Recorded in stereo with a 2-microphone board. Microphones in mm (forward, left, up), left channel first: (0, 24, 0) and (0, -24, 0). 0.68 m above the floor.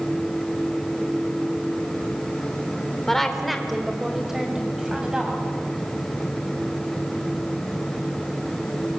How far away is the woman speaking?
About 2.5 m.